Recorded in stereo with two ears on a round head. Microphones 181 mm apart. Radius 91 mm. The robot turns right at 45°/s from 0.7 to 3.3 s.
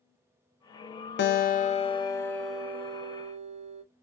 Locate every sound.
1.2 s a guitar: 120° left, 0.6 m; by 3.8 s 145° right, 0.6 m